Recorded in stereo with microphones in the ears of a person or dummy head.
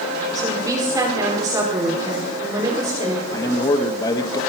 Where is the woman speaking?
20° right (ahead or behind), 4.5 m.